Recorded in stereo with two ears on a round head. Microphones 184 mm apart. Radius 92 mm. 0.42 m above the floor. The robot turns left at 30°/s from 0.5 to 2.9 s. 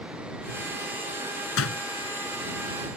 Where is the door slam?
75° left (ahead or behind); by 1.8 s 80° left.